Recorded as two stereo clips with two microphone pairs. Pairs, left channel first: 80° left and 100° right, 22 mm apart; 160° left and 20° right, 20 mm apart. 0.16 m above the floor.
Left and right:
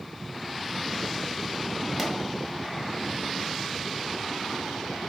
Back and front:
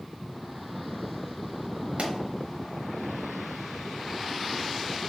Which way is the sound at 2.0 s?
5° right.